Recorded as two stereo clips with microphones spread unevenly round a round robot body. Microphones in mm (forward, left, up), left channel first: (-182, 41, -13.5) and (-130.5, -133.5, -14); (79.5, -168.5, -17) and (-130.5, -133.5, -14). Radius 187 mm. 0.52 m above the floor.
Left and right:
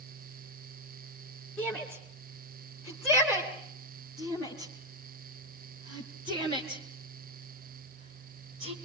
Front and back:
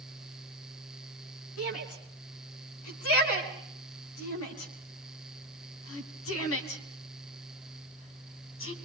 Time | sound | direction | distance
1.6 | a shout | 20° left | 5 m